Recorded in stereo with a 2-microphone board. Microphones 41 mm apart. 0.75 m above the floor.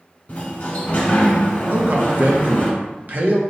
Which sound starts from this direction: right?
A man speaking, at 1.7 s.